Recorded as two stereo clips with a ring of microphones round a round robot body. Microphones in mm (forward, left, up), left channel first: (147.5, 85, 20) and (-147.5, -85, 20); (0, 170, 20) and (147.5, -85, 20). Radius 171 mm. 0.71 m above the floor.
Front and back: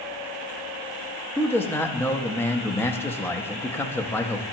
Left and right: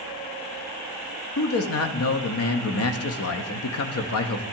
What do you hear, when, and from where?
1.4 s a man speaking: 110° left, 0.7 m